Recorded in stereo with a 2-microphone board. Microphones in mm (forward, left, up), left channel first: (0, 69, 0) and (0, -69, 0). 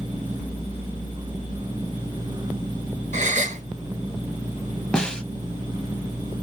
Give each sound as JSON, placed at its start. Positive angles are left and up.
{"t": 3.1, "sound": "a gasp", "side_deg": -60, "distance_m": 0.7}
{"t": 4.9, "sound": "a snare drum", "side_deg": 5, "distance_m": 0.5}